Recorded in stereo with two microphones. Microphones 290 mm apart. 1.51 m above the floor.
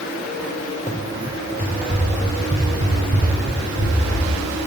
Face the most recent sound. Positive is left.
turn(degrees=-25)  # may be behind; listen again after turning